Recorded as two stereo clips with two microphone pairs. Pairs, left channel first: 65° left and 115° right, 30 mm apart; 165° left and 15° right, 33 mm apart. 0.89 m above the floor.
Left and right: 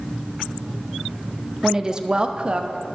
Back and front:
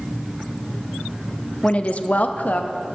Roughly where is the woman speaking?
Behind.